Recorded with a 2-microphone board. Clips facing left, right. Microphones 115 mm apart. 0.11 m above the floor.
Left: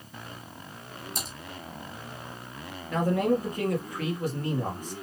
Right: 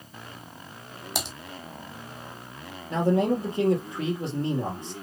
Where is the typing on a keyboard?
80° right, 0.9 m.